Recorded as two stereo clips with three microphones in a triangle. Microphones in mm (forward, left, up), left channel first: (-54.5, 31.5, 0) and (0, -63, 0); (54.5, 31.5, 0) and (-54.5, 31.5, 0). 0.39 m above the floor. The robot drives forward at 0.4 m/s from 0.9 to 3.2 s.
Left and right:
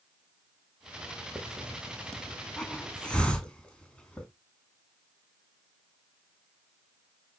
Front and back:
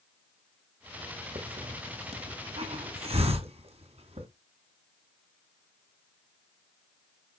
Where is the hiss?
150° right, 1.5 m; by 4.3 s 160° right, 2 m.